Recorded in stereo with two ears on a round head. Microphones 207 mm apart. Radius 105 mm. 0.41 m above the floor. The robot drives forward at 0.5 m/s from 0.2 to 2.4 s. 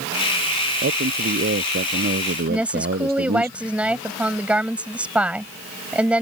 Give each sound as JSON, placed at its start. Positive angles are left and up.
{"t": 0.8, "sound": "a man speaking", "side_deg": -45}
{"t": 2.5, "sound": "a woman speaking", "side_deg": -5}